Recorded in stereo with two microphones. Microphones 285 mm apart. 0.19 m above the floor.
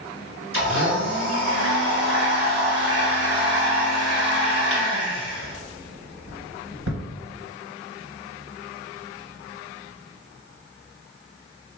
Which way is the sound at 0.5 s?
60° right (ahead or behind).